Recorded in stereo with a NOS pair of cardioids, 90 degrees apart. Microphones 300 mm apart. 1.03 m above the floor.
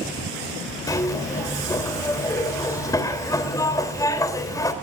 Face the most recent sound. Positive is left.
turn(degrees=10)